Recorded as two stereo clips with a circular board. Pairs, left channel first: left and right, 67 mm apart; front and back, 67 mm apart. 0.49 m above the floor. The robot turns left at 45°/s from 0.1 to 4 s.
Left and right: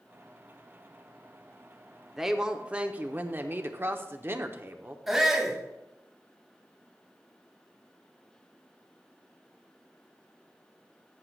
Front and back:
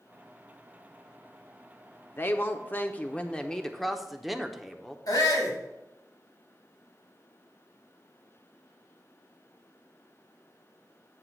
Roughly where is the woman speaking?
Ahead.